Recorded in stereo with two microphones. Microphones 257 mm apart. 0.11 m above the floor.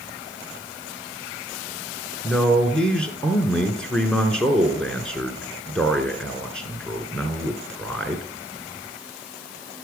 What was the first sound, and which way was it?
A man speaking, 5° left (ahead or behind).